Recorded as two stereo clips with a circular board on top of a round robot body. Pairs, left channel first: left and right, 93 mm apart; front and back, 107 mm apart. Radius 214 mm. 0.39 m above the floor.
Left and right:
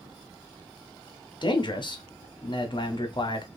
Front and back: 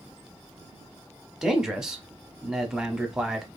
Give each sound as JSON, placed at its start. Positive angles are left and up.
{"t": 1.4, "sound": "a man speaking", "azimuth_deg": 95, "distance_m": 1.0}